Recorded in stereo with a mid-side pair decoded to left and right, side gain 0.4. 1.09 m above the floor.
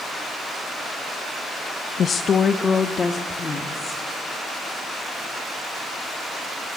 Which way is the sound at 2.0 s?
60° left.